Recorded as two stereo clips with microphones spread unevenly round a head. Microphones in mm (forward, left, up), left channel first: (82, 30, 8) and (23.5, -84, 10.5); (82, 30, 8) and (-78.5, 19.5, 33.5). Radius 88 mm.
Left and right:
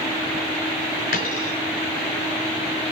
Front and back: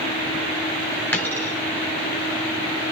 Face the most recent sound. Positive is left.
turn(degrees=80)